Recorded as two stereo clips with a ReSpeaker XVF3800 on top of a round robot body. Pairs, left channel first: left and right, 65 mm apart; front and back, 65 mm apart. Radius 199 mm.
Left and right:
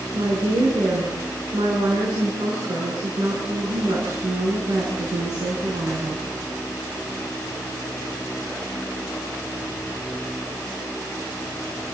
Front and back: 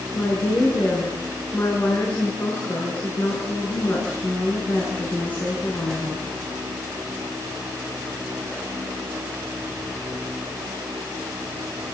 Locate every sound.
0.1 s a woman speaking: 65° right, 7.5 m